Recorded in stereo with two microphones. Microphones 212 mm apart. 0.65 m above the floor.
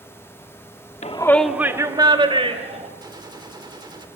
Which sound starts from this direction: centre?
A gunshot, at 3.0 s.